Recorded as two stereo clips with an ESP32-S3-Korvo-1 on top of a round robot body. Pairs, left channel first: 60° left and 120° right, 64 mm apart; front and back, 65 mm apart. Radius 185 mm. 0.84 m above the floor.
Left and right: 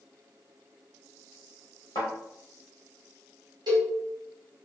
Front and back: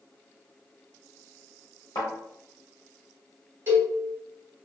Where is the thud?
30° left, 0.5 m.